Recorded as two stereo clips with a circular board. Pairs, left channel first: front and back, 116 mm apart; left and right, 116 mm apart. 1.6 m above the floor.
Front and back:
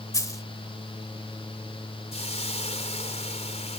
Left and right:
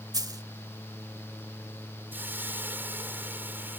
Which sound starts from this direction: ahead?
A hiss, at 2.1 s.